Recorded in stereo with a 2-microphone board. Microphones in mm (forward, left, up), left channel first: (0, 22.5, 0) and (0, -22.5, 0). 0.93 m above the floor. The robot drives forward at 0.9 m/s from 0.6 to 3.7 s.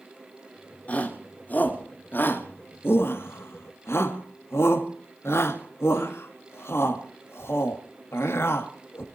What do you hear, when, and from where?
0.9 s a shout: 30° left (ahead or behind), 3 m; by 9.0 s 65° left (ahead or behind), 1.9 m